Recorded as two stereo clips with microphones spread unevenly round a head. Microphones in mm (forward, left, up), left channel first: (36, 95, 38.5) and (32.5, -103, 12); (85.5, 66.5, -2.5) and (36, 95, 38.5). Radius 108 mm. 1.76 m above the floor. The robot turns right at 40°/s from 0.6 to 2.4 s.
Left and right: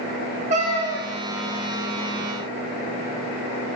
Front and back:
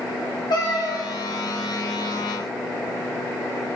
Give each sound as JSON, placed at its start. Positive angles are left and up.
{"t": 0.5, "sound": "a cat meowing", "azimuth_deg": -65, "distance_m": 1.0}